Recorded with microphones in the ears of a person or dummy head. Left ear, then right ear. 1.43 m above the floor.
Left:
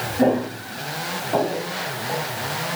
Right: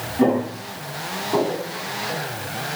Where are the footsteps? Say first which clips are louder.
Even; 10° right (ahead or behind), 5 m.